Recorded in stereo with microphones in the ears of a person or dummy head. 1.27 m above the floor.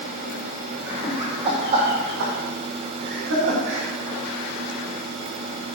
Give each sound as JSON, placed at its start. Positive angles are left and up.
{"t": 0.9, "sound": "laughter", "side_deg": -10, "distance_m": 0.8}